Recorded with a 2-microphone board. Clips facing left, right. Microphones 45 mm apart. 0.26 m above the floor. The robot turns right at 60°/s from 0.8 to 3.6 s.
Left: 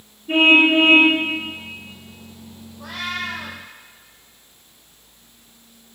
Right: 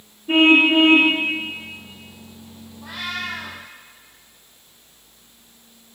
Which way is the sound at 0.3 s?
25° right (ahead or behind).